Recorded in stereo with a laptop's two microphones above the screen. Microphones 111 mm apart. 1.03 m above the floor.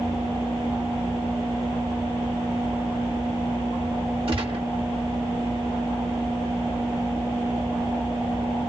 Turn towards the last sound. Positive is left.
turn(degrees=-55)  # may be behind; listen again after turning